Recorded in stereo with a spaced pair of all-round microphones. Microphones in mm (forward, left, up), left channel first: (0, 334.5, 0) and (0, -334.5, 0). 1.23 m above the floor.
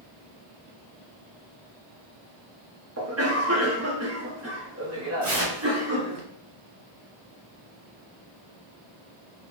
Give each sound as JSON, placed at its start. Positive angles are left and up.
{"t": 3.0, "sound": "a cough", "side_deg": -25, "distance_m": 0.8}
{"t": 5.2, "sound": "tearing paper", "side_deg": -75, "distance_m": 1.6}